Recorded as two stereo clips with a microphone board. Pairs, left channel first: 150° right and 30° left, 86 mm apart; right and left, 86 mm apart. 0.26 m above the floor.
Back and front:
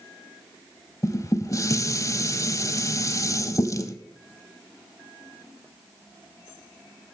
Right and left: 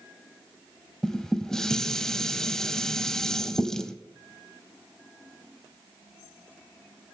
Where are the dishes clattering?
170° right, 0.9 m.